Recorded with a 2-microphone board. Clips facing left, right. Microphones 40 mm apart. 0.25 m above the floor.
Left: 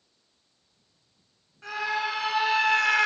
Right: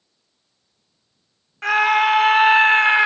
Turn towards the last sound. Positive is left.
turn(degrees=-20)  # may be behind; listen again after turning